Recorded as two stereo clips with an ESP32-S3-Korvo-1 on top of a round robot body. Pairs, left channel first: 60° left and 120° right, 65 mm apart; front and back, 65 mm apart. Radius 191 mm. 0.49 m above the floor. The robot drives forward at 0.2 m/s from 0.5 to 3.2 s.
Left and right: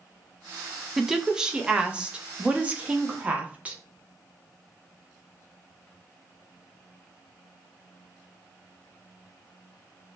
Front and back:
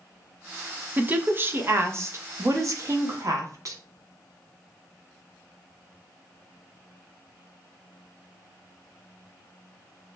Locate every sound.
1.0 s a woman speaking: 165° left, 0.7 m; by 3.8 s 175° left, 0.9 m